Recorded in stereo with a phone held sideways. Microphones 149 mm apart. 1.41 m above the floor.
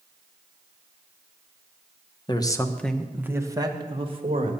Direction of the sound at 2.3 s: 30° left (ahead or behind).